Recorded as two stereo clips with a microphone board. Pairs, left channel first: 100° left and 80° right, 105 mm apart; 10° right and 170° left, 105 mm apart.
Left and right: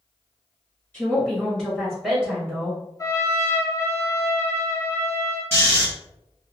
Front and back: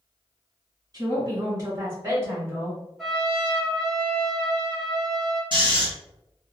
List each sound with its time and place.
0.9 s a woman speaking: 160° left, 1.7 m; by 2.8 s 130° right, 1.5 m
3.0 s a trumpet: 80° left, 1.6 m
5.5 s snoring: 160° left, 1.6 m